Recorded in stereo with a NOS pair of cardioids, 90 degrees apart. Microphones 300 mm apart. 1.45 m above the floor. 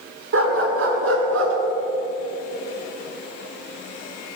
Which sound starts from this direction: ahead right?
A dog barking, at 0.3 s.